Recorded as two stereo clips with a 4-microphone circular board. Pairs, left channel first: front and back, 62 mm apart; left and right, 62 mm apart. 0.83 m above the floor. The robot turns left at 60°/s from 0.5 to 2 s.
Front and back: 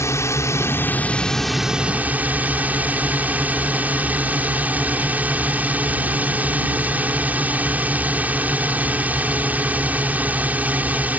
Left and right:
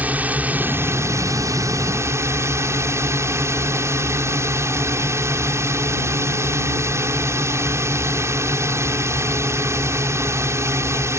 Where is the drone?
30° right; by 11.2 s 120° right.